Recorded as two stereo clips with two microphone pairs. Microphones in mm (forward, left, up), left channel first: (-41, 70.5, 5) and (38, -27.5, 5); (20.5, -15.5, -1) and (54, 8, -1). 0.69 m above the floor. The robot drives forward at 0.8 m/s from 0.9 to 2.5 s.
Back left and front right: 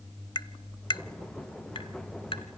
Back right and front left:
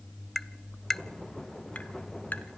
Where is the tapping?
135° left, 0.5 m; by 2.5 s 170° left, 1.6 m.